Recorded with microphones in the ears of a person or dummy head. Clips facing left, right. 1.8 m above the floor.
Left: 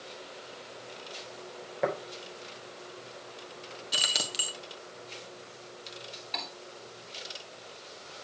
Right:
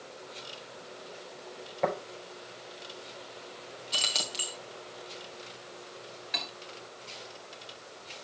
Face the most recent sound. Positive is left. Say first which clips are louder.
# even
turn(degrees=-15)  # may be behind; listen again after turning